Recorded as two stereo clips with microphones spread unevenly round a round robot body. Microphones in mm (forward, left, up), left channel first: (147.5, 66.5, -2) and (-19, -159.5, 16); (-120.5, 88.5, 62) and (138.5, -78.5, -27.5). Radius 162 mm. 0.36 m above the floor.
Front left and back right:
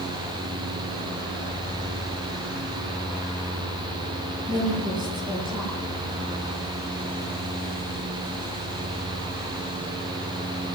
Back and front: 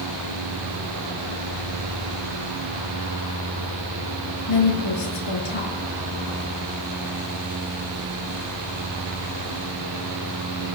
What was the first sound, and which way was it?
A woman speaking, 155° left.